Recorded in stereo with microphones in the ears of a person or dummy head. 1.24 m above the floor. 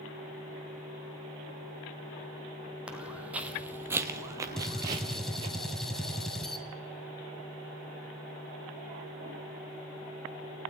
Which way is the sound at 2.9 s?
5° right (ahead or behind).